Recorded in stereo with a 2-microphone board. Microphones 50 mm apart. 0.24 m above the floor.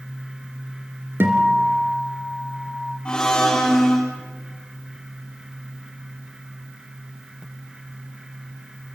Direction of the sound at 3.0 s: 15° left (ahead or behind).